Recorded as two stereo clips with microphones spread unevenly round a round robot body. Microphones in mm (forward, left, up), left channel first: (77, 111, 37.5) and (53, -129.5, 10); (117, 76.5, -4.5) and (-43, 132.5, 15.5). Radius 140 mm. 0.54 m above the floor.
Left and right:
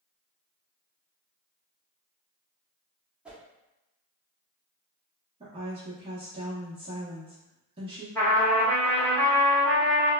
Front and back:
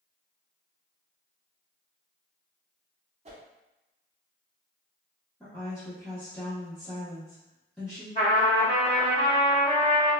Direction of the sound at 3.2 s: 165° right.